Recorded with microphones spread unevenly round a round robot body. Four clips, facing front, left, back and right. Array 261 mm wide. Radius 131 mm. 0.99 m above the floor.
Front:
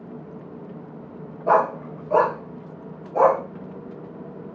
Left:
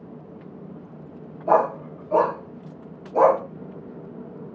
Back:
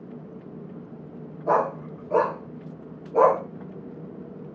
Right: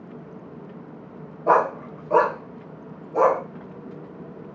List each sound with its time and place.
1.5 s a dog barking: 75° right, 0.9 m; by 3.4 s 175° left, 1.0 m